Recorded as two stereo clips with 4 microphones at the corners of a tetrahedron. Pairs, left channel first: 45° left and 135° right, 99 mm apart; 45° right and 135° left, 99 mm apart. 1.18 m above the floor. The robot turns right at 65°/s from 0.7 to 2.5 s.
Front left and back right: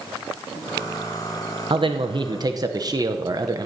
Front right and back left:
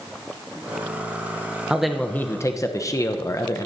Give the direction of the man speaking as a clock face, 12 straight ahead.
5 o'clock.